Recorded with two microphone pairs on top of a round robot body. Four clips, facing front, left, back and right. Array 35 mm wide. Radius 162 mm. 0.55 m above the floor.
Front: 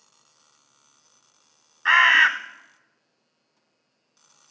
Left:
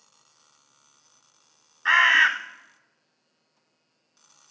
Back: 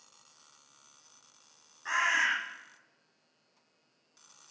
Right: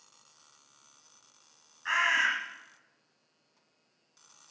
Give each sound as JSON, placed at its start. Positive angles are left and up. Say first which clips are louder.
{"t": 1.9, "sound": "a bird", "louder": "left 9 dB, front 13 dB", "azimuth_deg": 30, "distance_m": 0.9}